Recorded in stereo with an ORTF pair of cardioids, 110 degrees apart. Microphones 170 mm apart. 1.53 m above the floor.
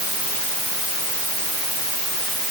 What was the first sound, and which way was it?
Only background noise.